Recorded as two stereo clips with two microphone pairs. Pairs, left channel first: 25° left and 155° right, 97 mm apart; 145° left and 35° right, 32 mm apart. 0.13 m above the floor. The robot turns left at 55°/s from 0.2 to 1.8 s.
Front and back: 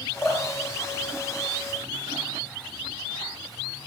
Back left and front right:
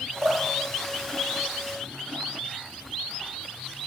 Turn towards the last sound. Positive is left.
turn(degrees=-145)